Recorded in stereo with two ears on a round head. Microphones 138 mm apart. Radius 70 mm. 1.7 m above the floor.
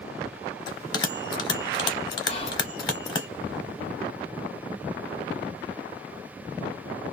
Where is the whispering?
40° left (ahead or behind), 0.9 m.